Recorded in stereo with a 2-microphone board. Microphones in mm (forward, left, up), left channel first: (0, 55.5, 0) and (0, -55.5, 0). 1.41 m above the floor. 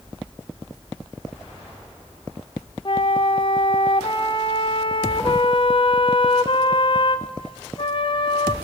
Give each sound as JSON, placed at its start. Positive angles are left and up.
{"t": 2.9, "sound": "a flute", "side_deg": 45, "distance_m": 0.6}